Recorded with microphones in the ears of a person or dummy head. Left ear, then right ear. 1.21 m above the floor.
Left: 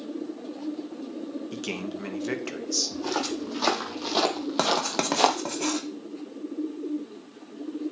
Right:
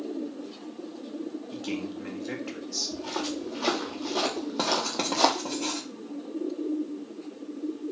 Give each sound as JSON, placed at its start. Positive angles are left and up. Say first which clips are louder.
{"t": 1.5, "sound": "a man speaking", "louder": "left 1 dB", "side_deg": 75, "distance_m": 1.4}
{"t": 2.9, "sound": "footsteps", "louder": "left 3 dB", "side_deg": 65, "distance_m": 3.0}
{"t": 4.6, "sound": "writing", "louder": "left 2 dB", "side_deg": 70, "distance_m": 1.6}